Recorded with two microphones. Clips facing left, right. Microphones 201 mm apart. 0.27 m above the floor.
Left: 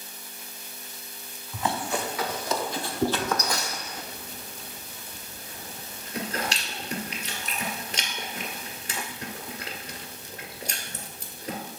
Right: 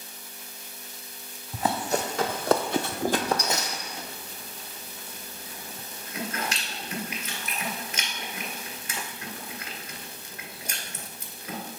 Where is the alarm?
I don't hear an alarm.